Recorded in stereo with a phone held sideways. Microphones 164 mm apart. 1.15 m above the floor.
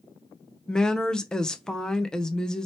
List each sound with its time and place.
0.7 s a woman speaking: 5° left (ahead or behind), 0.5 m